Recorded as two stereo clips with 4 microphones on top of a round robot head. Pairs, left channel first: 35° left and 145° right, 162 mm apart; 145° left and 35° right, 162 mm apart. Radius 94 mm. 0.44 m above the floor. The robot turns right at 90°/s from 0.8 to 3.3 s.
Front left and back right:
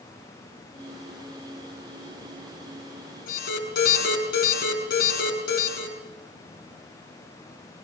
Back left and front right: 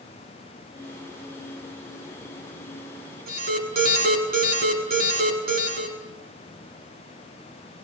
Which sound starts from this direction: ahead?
An alarm, at 3.3 s.